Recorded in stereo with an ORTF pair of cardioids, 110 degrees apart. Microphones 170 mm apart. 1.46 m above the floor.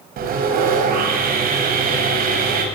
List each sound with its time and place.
0.2 s sawing: 60° right, 7.5 m